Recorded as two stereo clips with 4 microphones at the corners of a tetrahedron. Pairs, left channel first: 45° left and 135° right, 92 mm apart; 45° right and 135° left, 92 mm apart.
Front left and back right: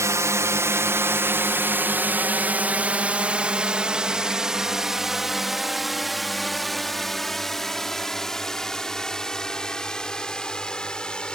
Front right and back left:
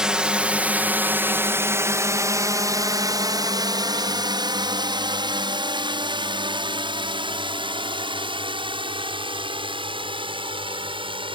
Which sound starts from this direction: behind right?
A drone, at 0.0 s.